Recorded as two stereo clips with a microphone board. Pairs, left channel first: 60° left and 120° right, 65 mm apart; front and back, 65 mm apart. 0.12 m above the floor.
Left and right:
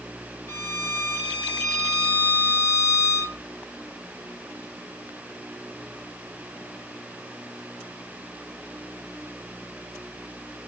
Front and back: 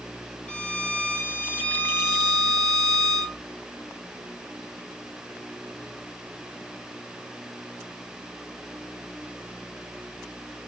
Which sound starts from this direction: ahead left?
A violin, at 0.5 s.